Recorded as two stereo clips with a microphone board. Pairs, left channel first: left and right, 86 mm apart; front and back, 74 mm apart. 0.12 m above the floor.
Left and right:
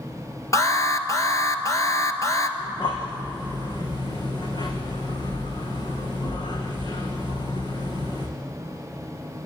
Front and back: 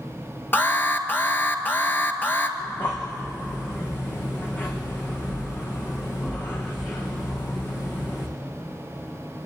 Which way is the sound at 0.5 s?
55° left.